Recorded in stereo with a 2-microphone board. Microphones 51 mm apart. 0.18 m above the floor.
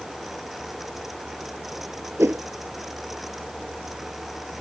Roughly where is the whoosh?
Right.